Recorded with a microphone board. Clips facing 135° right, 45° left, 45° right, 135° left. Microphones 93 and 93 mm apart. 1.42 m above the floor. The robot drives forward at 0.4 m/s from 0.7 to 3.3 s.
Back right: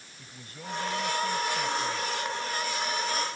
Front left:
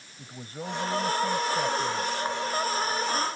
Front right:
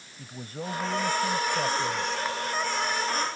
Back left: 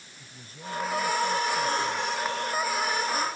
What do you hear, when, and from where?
0.2 s a man speaking: 10° right